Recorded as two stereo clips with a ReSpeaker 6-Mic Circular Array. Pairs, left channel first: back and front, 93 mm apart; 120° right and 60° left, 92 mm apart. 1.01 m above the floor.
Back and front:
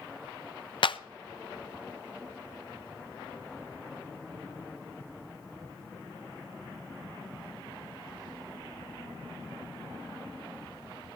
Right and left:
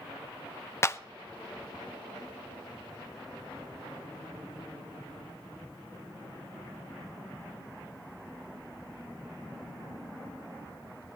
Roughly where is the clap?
Behind.